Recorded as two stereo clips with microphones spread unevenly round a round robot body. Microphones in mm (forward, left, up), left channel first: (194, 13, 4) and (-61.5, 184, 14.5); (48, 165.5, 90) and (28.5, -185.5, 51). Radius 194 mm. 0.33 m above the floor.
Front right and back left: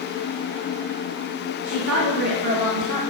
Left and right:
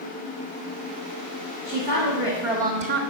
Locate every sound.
1.6 s a woman speaking: 145° left, 1.8 m; by 3.0 s 105° right, 1.3 m